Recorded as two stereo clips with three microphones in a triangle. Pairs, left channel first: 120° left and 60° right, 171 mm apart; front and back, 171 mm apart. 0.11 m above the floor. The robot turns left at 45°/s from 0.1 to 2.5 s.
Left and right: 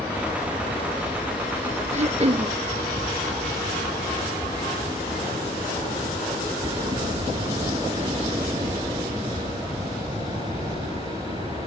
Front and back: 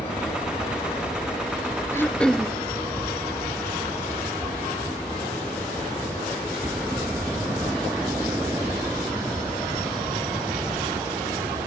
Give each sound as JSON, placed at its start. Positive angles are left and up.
{"t": 0.0, "sound": "an aircraft", "azimuth_deg": 10}
{"t": 1.9, "sound": "throat clearing", "azimuth_deg": -70}